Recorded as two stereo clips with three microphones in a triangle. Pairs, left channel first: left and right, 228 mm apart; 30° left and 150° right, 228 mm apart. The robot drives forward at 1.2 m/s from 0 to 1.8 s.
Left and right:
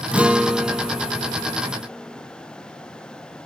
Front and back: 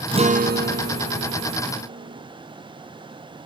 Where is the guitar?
165° right; by 2.2 s straight behind.